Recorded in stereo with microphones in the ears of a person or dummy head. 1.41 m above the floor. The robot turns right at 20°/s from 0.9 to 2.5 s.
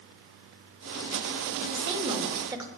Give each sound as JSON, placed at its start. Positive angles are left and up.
{"t": 1.7, "sound": "a woman speaking", "side_deg": -30, "distance_m": 2.5}